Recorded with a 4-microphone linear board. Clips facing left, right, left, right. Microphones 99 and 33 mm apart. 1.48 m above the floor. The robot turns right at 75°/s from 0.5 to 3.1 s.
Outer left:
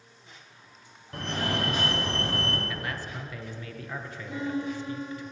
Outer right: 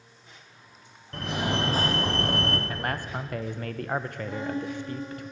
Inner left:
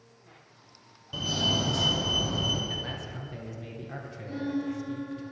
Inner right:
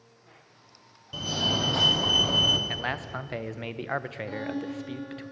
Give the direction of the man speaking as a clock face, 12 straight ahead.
4 o'clock.